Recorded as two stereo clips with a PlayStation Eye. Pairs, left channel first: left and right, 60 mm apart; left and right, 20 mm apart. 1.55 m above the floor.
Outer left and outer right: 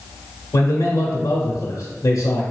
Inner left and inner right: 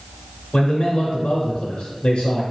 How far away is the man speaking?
About 0.8 m.